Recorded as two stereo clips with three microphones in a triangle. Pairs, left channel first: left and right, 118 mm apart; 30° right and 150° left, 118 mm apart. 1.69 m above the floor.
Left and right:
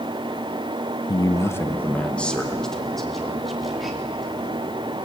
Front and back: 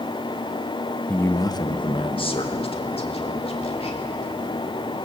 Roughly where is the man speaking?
Ahead left.